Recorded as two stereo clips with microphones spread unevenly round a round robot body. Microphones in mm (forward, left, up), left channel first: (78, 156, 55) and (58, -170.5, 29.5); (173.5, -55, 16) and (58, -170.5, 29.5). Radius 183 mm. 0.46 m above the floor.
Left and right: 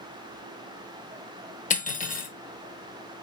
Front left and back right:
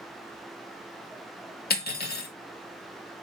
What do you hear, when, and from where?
1.7 s cutlery clinking: 15° left, 0.9 m